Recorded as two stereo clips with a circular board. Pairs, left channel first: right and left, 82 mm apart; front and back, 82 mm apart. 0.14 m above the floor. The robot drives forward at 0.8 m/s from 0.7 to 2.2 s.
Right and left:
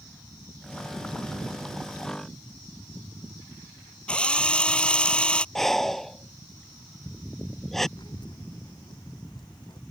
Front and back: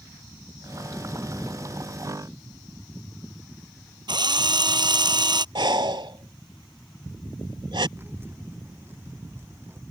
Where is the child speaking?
120° right.